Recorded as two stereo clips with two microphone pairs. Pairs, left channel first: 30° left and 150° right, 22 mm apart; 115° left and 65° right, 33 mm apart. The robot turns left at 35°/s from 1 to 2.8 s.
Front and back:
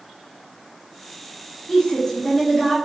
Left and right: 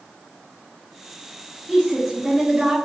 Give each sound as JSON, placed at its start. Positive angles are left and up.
{"t": 1.7, "sound": "a woman speaking", "azimuth_deg": 20, "distance_m": 0.7}